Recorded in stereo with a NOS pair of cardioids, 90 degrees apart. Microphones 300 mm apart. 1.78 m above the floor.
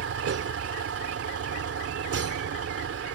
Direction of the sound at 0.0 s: 50° right.